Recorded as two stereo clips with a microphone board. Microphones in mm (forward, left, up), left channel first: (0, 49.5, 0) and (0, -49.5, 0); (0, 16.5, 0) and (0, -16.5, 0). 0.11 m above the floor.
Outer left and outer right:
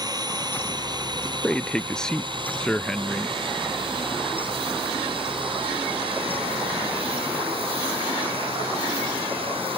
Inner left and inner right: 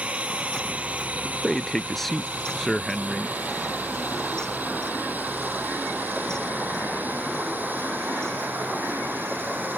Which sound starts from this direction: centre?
A man speaking, at 1.4 s.